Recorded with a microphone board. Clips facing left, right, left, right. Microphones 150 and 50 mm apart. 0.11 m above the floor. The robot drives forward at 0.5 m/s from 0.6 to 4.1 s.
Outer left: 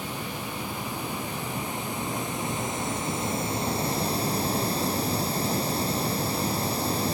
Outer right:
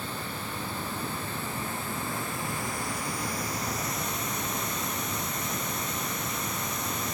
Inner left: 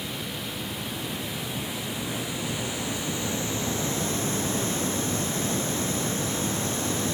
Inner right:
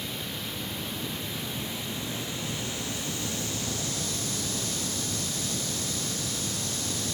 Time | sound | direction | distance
0.0 | running water | 15° left (ahead or behind) | 3 m